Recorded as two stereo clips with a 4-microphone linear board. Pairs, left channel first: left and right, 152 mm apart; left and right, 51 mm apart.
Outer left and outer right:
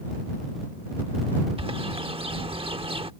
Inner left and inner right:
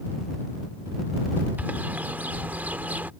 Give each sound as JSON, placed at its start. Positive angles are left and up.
{"t": 1.6, "sound": "a bird", "side_deg": -35}